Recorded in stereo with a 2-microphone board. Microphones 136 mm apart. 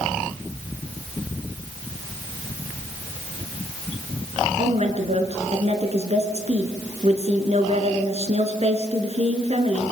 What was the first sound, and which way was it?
A woman speaking, 50° right (ahead or behind).